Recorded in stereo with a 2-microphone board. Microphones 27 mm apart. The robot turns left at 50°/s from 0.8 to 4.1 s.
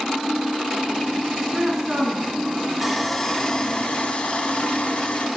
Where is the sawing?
175° right, 2 m; by 5.3 s 120° left, 2 m.